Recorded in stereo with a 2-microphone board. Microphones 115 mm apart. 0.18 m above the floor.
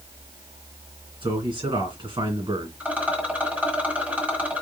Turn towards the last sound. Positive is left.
turn(degrees=-15)  # may be behind; listen again after turning